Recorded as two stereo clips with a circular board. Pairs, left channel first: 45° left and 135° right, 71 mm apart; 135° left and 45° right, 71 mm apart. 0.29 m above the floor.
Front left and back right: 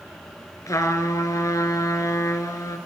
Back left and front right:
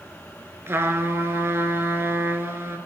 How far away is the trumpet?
About 1.5 m.